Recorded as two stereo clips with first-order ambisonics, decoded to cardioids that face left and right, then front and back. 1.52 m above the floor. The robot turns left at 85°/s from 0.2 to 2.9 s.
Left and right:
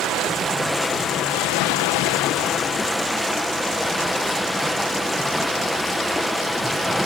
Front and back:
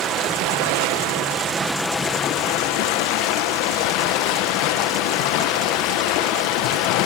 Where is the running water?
135° right, 0.9 m; by 7.1 s straight ahead, 0.9 m.